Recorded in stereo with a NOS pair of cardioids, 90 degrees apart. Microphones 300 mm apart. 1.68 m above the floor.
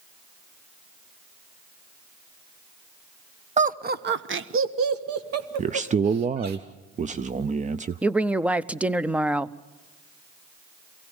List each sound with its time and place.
3.6 s laughter: 25° right, 1.1 m; by 6.6 s 60° right, 2.5 m
5.6 s a man speaking: 25° right, 0.5 m
8.0 s a woman speaking: 5° right, 0.6 m